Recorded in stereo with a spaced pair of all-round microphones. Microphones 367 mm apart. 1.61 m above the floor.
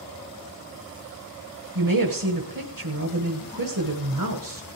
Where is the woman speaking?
60° right (ahead or behind), 1.4 m.